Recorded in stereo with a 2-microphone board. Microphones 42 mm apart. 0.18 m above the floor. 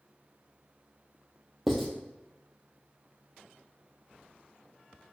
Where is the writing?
Centre (ahead or behind), 1.0 m.